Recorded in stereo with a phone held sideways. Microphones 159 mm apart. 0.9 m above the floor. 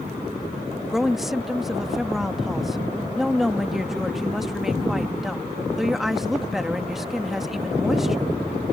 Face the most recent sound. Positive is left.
turn(degrees=0)  # may be behind; listen again after turning